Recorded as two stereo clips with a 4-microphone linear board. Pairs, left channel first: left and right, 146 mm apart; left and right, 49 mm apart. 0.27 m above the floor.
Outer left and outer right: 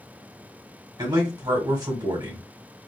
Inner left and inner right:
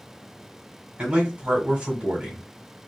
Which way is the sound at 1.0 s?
30° right (ahead or behind).